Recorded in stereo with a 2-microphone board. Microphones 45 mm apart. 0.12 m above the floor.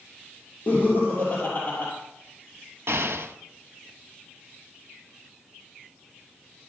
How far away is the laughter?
About 2.5 m.